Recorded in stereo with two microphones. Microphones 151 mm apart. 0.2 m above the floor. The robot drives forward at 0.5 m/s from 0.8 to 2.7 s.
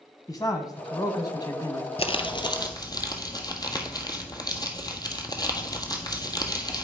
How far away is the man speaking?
About 1.1 m.